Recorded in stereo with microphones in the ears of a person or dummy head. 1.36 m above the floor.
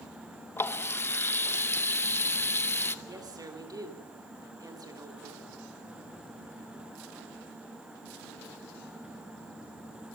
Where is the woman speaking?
20° right (ahead or behind), 3 m.